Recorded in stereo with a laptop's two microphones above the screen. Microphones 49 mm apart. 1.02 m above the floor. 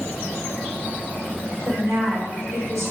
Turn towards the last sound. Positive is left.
turn(degrees=-85)